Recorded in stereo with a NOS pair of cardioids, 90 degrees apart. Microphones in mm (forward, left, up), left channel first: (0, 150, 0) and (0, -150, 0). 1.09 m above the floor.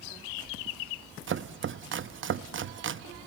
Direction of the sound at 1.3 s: 45° right.